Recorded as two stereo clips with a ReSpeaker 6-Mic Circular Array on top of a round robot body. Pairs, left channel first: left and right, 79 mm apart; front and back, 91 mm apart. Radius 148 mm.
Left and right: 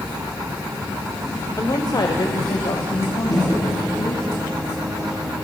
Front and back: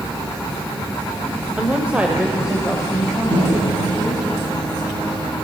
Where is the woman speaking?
110° left, 1.9 m; by 4.3 s 95° left, 5 m.